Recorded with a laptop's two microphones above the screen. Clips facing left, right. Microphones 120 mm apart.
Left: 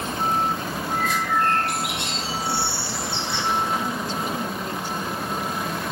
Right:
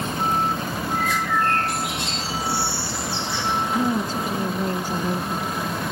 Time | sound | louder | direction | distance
0.9 | a bird | even | 65° left (ahead or behind) | 5.5 m
3.7 | a woman speaking | right 4 dB | 45° right (ahead or behind) | 0.8 m